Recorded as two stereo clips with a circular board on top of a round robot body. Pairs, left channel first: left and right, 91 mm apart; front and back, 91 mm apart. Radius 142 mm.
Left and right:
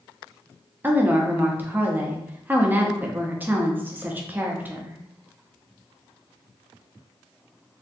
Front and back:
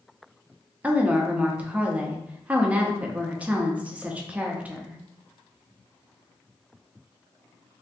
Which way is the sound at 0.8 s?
125° right.